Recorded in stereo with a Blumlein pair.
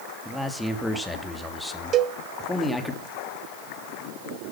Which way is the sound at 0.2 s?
5° left.